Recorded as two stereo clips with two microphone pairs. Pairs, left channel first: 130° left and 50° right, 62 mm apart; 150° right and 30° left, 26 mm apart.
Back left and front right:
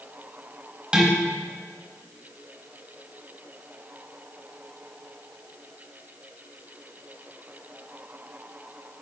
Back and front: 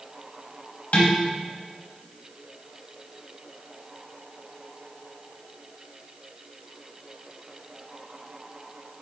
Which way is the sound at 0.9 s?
125° right.